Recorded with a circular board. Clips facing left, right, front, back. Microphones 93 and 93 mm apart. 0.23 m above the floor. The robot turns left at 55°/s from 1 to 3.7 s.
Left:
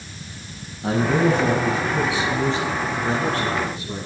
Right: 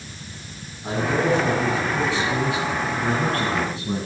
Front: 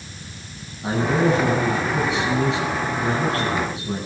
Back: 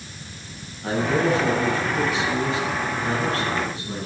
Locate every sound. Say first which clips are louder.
0.8 s a man speaking: left 3 dB, front 2 dB; 75° left, 7.5 m; by 4.1 s 75° right, 7.5 m